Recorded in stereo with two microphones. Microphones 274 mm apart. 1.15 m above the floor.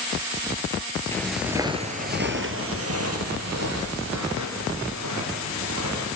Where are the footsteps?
10° left (ahead or behind), 1.4 m; by 6.1 s 75° right (ahead or behind), 5 m.